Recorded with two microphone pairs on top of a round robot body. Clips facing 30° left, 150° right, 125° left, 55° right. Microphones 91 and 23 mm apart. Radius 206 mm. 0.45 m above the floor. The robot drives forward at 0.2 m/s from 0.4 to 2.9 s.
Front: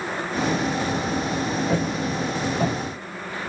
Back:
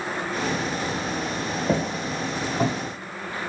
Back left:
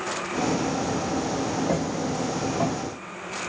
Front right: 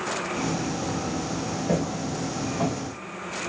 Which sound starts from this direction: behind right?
Footsteps, at 1.7 s.